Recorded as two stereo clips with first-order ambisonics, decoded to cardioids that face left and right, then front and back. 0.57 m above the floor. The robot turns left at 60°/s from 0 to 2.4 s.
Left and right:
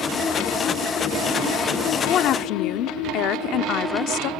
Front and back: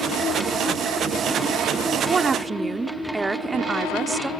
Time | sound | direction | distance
2.1 | a woman speaking | 125° left | 0.9 m